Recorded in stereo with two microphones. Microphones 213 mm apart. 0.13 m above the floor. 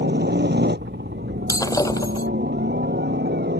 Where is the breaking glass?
15° left (ahead or behind).